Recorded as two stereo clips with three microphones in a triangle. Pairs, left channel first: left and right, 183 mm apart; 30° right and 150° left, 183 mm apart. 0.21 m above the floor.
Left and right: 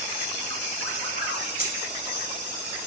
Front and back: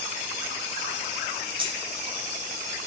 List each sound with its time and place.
1.6 s keys jangling: 100° left, 1.3 m